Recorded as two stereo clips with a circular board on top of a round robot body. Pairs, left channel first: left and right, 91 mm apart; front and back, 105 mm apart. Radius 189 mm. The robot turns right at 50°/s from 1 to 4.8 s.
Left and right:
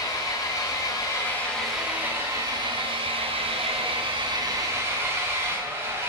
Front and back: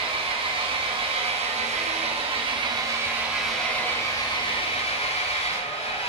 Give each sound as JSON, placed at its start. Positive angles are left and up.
{"t": 0.0, "sound": "an engine running", "azimuth_deg": 145, "distance_m": 4.0}